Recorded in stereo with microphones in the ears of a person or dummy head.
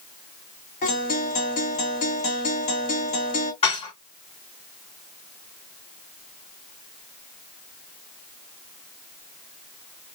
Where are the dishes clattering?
25° left (ahead or behind), 1.7 m.